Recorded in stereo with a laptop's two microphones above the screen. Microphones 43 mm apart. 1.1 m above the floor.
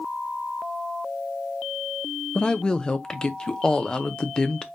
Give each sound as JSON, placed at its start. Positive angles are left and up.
{"t": 2.4, "sound": "a woman speaking", "side_deg": 20, "distance_m": 0.5}